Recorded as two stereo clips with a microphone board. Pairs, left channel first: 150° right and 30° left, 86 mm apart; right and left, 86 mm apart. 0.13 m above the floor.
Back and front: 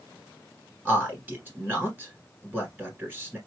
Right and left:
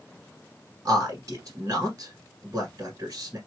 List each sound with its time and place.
0.8 s a man speaking: 95° left, 1.6 m